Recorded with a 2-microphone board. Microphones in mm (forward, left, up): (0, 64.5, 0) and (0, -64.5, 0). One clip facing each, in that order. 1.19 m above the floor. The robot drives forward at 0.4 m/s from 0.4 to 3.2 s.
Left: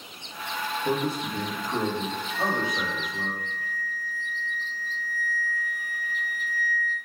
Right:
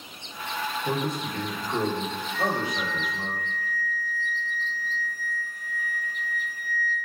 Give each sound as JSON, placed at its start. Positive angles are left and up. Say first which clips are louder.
{"t": 0.8, "sound": "a man speaking", "louder": "left 3 dB", "side_deg": 30, "distance_m": 1.0}
{"t": 2.3, "sound": "a flute", "louder": "right 1 dB", "side_deg": 55, "distance_m": 1.0}